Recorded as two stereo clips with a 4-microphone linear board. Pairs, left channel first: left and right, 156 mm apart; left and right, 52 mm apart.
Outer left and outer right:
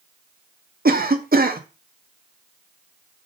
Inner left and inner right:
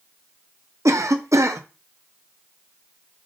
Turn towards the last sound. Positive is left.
turn(degrees=-70)  # may be behind; listen again after turning